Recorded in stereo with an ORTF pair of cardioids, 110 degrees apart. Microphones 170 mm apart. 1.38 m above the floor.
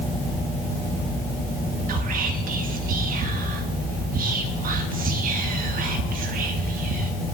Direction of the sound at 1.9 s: 55° right.